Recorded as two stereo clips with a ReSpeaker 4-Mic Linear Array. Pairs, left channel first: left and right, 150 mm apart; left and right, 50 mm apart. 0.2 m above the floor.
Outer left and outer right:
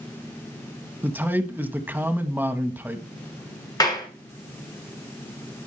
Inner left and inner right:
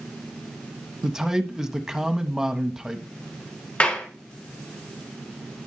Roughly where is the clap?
Left.